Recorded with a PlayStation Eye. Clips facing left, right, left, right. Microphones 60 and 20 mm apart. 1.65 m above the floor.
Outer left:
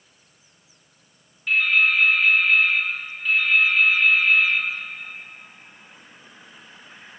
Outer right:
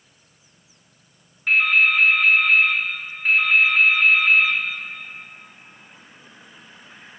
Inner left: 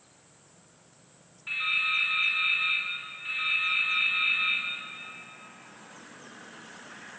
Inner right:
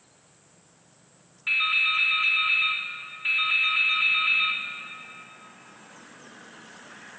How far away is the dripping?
About 3 m.